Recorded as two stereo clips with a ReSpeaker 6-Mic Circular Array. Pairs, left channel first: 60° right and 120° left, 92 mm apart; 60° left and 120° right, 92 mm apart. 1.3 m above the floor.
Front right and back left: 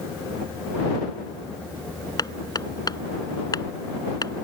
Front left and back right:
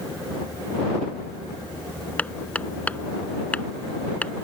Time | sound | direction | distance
2.2 | hammering | 15° right | ?